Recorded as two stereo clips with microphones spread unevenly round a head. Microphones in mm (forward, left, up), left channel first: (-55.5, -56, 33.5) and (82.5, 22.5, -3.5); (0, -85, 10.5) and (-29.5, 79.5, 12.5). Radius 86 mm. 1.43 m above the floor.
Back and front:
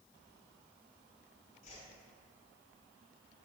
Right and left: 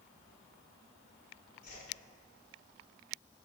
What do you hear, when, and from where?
1.6 s a whoosh: 120° right, 3.5 m